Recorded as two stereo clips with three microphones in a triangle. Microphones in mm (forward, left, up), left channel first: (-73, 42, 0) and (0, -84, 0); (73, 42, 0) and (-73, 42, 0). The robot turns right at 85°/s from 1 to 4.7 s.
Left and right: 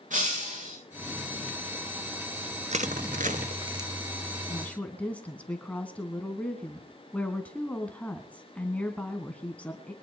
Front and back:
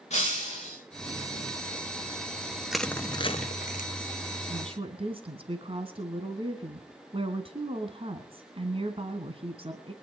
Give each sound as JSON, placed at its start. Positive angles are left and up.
{"t": 0.1, "sound": "breaking glass", "azimuth_deg": -35, "distance_m": 7.5}
{"t": 2.7, "sound": "crushing", "azimuth_deg": -95, "distance_m": 0.9}
{"t": 4.5, "sound": "a woman speaking", "azimuth_deg": 175, "distance_m": 2.0}